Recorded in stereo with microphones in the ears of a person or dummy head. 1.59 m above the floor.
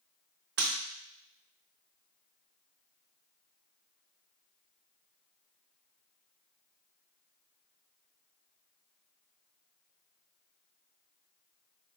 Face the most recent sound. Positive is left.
turn(degrees=-60)  # may be behind; listen again after turning